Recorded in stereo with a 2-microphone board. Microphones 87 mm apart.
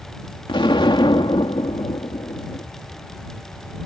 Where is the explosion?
80° left.